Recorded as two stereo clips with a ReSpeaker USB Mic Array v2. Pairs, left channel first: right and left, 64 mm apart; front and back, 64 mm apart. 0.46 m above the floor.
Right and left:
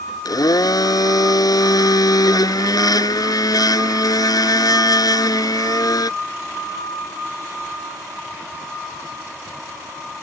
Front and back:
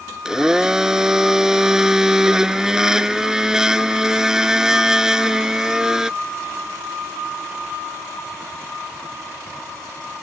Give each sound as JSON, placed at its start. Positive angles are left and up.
{"t": 0.2, "sound": "a blender", "azimuth_deg": -100}